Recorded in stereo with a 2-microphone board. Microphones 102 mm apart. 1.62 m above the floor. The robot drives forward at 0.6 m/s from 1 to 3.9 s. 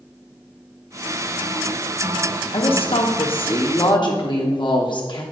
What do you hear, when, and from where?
2.5 s a woman speaking: 65° left (ahead or behind), 0.9 m; by 5.2 s 55° left (ahead or behind), 1.0 m